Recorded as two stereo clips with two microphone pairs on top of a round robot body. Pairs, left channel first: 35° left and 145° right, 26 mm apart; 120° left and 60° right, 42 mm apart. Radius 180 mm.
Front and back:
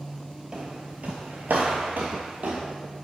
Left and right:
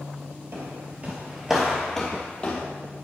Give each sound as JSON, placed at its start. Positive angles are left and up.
{"t": 0.5, "sound": "footsteps", "azimuth_deg": -85, "distance_m": 0.7}